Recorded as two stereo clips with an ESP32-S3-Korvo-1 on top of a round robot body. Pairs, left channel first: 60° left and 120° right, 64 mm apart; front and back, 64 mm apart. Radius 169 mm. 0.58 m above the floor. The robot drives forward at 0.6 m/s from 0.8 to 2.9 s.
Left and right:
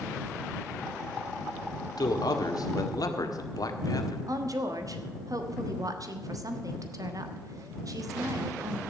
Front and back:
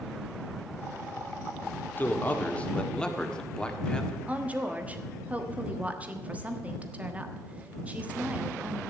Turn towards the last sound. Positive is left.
turn(degrees=-115)